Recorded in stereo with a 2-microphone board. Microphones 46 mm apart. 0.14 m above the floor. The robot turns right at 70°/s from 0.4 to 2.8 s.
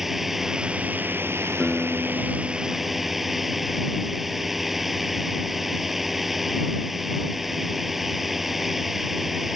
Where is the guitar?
5° right; by 3.8 s 80° left.